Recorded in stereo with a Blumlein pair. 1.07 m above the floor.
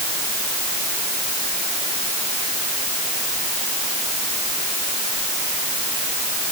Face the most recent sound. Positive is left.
No sound to turn to.